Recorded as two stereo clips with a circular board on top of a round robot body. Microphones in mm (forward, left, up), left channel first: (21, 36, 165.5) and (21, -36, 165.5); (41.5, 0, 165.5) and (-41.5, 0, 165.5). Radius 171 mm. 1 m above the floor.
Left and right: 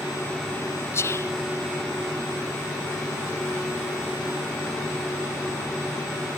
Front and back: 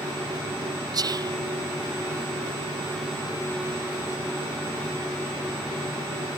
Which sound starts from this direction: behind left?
Whispering, at 0.9 s.